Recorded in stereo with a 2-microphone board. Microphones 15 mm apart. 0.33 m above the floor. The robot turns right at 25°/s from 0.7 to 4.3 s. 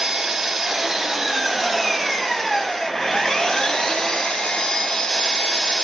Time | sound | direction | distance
0.0 | an engine running | 25° right | 3.5 m